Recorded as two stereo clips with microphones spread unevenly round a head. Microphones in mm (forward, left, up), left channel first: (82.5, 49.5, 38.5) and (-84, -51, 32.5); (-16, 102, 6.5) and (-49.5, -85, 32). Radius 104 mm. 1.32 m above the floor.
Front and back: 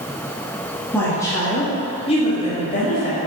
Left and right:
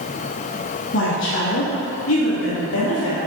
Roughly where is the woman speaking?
Left.